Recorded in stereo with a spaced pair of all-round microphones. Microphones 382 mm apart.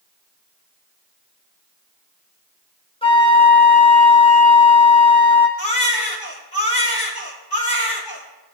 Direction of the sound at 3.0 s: 15° left (ahead or behind).